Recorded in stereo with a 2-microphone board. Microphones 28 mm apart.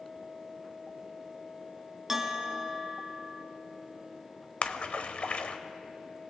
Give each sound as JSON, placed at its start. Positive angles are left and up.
{"t": 2.1, "sound": "a bell", "side_deg": -20, "distance_m": 0.8}
{"t": 4.6, "sound": "a splash", "side_deg": 55, "distance_m": 0.7}